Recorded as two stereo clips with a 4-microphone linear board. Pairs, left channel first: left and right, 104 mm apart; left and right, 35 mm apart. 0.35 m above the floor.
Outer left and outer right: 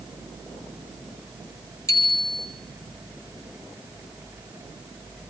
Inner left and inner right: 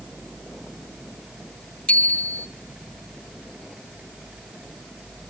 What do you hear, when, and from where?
1.9 s a bicycle bell: 30° left (ahead or behind), 2 m